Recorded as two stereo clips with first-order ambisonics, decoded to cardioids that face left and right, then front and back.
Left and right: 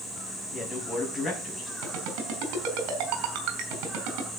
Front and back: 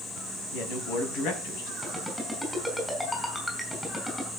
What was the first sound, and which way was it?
A man speaking, 15° left.